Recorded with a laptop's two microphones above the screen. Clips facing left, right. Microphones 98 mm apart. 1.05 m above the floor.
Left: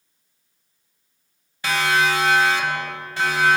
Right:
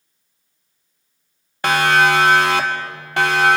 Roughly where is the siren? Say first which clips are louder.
Right 5 dB; right.